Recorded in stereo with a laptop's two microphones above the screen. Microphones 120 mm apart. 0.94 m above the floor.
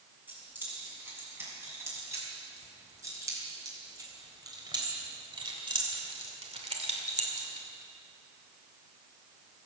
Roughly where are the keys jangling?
Centre.